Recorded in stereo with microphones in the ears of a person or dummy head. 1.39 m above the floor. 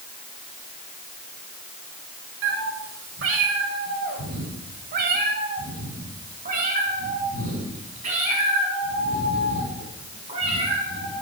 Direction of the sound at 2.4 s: 65° right (ahead or behind).